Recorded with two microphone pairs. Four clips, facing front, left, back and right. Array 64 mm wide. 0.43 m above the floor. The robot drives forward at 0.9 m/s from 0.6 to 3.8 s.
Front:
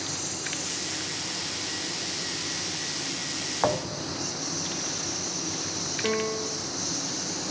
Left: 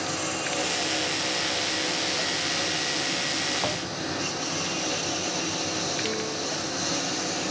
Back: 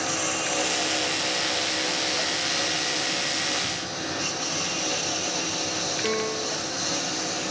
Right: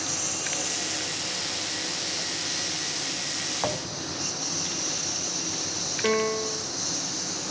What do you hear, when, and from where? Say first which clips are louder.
0.0 s a lawn mower: left 5 dB, back 8 dB; 160° left; by 7.5 s 135° left
3.6 s a thud: left 1 dB, front 4 dB; 5° right
6.0 s a piano: right 5 dB, front 1 dB; 100° right